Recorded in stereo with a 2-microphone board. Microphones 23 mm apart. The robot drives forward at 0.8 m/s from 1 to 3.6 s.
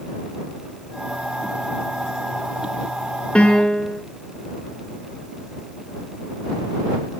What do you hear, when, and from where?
3.4 s a piano: 70° left (ahead or behind), 0.8 m; by 4.0 s 60° left (ahead or behind), 0.9 m